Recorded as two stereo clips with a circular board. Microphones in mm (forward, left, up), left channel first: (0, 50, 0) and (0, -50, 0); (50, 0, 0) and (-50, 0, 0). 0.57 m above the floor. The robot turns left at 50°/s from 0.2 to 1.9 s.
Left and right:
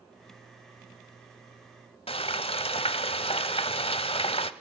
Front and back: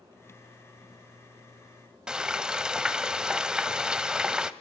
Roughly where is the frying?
Left.